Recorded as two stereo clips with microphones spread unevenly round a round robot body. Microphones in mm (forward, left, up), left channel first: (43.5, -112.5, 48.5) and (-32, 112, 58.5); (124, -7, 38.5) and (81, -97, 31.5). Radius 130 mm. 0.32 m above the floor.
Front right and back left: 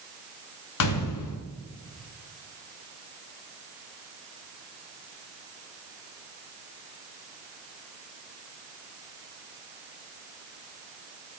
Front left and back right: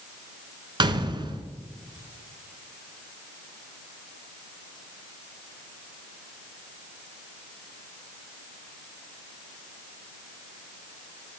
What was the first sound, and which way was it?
A gunshot, 70° right.